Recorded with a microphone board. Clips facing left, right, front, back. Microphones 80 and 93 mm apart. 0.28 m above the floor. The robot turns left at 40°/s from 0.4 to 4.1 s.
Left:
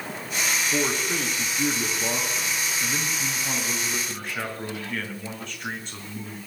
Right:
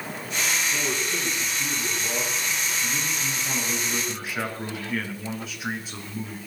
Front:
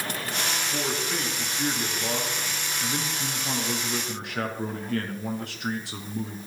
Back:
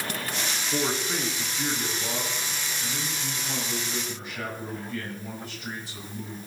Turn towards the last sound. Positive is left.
turn(degrees=-5)